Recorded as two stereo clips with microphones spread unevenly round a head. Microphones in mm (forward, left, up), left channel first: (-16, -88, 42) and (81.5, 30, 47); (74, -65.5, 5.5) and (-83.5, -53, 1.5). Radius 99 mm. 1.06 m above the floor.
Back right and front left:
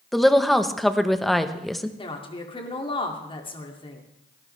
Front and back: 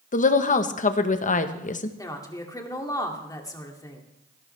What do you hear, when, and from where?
0.1 s a woman speaking: 40° right, 1.0 m
2.0 s a woman speaking: 75° right, 2.5 m